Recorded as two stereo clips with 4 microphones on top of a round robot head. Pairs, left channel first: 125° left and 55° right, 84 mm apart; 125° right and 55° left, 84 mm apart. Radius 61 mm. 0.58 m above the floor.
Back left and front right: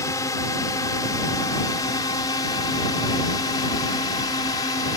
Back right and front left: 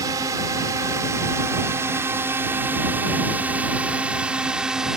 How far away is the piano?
I don't hear a piano.